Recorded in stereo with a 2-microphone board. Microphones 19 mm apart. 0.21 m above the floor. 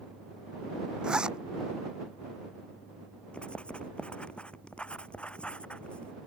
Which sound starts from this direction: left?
Writing, at 3.3 s.